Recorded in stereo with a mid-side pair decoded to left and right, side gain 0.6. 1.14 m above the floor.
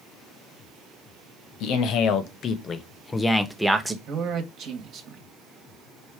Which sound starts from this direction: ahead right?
A man speaking, at 4.1 s.